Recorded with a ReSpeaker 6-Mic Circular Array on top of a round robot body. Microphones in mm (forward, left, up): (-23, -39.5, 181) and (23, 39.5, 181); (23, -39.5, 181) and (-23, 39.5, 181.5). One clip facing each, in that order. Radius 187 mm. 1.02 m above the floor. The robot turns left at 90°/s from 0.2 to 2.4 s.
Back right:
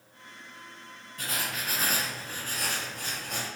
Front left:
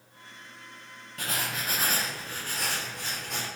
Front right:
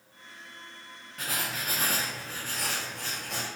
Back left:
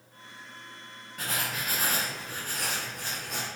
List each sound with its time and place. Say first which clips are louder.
1.2 s writing: front left 1 dB, back left 1 dB; 30° left, 0.8 m; by 3.5 s 80° right, 0.8 m